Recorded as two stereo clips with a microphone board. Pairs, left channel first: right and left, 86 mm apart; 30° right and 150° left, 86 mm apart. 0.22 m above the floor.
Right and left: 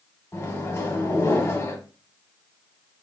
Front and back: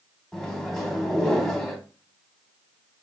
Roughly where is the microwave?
Right.